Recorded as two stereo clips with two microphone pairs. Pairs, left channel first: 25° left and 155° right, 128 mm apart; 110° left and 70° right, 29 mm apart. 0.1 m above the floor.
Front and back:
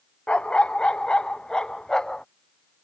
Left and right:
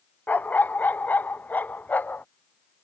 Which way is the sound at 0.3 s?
110° left.